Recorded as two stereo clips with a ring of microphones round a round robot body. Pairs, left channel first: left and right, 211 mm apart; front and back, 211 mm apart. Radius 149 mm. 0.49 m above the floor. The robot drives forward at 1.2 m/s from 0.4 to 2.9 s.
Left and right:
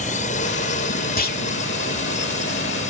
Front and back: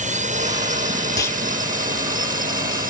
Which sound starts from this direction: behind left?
A drone, at 0.0 s.